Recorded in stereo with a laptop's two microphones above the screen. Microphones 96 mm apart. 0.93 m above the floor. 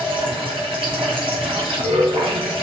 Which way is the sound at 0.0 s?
65° right (ahead or behind).